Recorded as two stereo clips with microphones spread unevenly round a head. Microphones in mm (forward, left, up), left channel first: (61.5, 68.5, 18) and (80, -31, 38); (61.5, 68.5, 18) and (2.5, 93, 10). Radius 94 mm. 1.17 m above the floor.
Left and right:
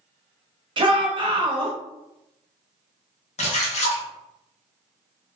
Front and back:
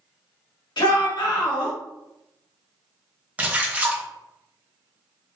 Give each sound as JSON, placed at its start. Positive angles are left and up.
{"t": 0.8, "sound": "a shout", "azimuth_deg": -35, "distance_m": 1.1}
{"t": 3.4, "sound": "a splash", "azimuth_deg": 85, "distance_m": 0.9}